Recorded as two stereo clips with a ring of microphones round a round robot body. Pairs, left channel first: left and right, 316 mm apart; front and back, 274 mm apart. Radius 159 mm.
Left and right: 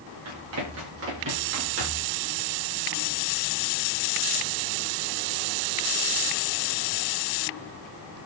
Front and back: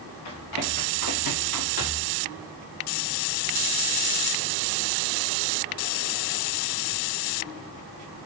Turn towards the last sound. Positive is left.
turn(degrees=-35)